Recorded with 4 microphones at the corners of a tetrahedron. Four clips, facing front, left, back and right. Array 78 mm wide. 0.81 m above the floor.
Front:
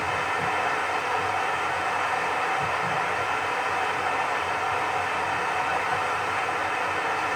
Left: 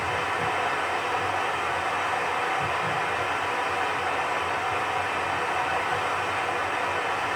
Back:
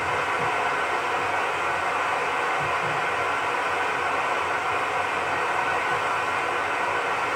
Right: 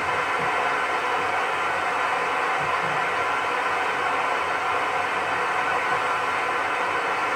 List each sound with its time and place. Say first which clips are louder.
0.0 s running water: right 3 dB, back 2 dB; 120° right, 1.2 m